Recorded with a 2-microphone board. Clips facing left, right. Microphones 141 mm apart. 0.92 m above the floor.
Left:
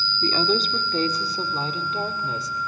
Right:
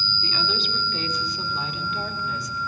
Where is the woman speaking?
45° left (ahead or behind), 2.5 m; by 2.6 s 30° left (ahead or behind), 4 m.